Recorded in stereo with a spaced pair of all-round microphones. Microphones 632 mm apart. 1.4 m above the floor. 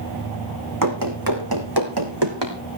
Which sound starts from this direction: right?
Running footsteps, at 0.8 s.